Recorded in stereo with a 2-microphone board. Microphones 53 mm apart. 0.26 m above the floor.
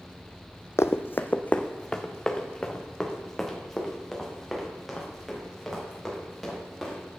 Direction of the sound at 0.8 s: 65° left (ahead or behind).